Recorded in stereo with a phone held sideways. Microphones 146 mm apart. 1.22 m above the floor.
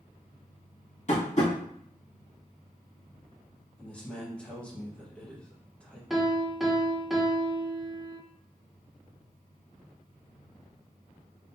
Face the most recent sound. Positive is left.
turn(degrees=0)  # may be behind; listen again after turning